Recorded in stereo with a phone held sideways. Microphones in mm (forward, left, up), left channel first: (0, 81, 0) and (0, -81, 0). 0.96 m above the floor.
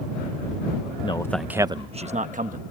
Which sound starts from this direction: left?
A man speaking, at 1.0 s.